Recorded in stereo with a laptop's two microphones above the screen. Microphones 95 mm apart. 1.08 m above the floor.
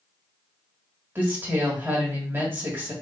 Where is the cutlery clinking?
I don't hear cutlery clinking.